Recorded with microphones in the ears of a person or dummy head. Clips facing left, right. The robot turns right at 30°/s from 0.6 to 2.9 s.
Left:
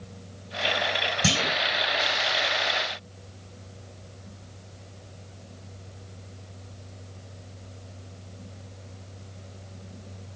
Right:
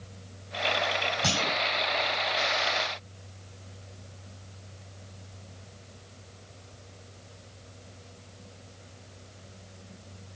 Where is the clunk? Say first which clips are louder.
Left 5 dB; 35° left (ahead or behind), 1.0 m; by 1.6 s 25° left (ahead or behind), 1.0 m.